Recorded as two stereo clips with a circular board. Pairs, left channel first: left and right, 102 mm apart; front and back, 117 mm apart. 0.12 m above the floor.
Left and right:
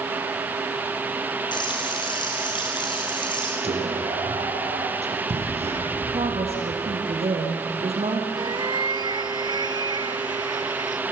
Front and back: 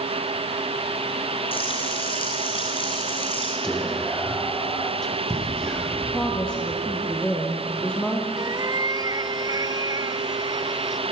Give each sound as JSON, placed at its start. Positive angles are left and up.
{"t": 1.5, "sound": "frying", "azimuth_deg": 45, "distance_m": 2.5}
{"t": 3.6, "sound": "whispering", "azimuth_deg": -85, "distance_m": 5.5}
{"t": 6.0, "sound": "a woman speaking", "azimuth_deg": -80, "distance_m": 3.5}
{"t": 8.4, "sound": "a cat meowing", "azimuth_deg": -125, "distance_m": 0.8}